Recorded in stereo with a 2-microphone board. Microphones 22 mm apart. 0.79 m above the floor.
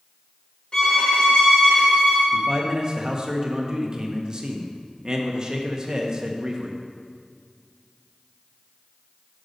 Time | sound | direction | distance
0.7 | a violin | 25° left (ahead or behind) | 2.5 m
2.3 | a man speaking | 30° right (ahead or behind) | 0.7 m